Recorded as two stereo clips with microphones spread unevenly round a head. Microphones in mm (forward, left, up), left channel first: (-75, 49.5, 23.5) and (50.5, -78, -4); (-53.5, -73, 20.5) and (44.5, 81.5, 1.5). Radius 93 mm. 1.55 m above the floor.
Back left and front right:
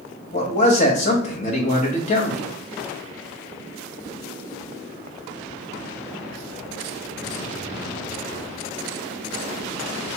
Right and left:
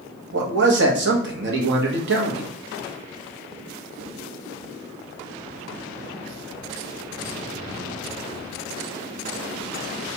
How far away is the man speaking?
About 0.9 m.